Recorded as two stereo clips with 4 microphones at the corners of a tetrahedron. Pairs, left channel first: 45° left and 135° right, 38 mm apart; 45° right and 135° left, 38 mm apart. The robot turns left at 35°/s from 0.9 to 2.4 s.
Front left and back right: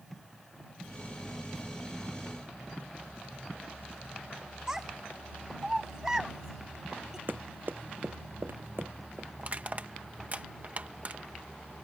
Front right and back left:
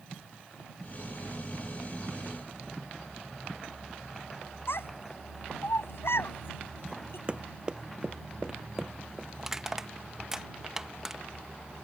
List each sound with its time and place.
4.7 s a child speaking: 60° right
7.3 s running footsteps: 160° right; by 9.3 s 145° right
9.4 s crushing: 155° right